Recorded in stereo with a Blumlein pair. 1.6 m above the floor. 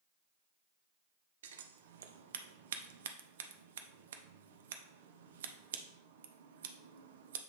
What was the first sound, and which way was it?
Scissors, 60° right.